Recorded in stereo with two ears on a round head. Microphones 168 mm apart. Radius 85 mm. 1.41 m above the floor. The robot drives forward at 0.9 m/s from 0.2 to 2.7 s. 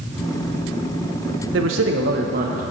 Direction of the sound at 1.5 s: 65° right (ahead or behind).